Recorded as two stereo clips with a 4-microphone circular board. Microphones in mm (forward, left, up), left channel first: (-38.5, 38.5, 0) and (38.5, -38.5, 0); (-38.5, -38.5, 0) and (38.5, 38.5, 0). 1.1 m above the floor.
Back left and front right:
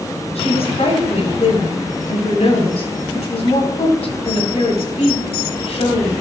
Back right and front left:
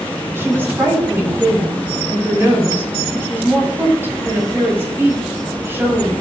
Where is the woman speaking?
115° left, 6.5 m.